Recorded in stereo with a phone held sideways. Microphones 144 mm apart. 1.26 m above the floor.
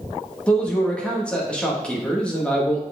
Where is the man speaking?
10° left (ahead or behind), 1.8 m.